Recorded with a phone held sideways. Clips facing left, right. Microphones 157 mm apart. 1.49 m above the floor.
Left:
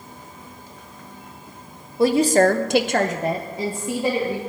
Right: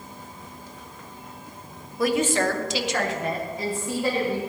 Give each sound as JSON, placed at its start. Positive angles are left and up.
{"t": 2.0, "sound": "a woman speaking", "side_deg": 25, "distance_m": 1.2}